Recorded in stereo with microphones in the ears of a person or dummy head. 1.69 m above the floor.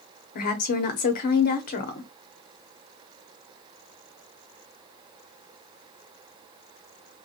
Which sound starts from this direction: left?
A woman speaking, at 0.3 s.